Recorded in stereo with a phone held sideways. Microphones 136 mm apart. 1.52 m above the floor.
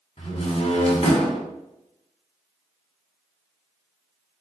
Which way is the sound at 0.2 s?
50° left (ahead or behind).